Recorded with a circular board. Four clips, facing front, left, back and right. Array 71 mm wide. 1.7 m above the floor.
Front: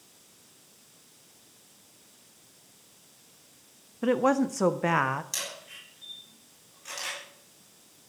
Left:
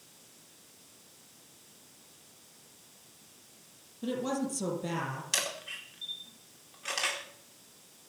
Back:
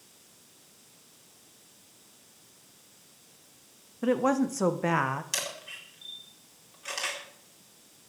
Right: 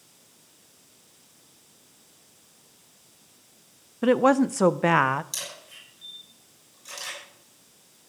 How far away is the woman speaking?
About 0.7 m.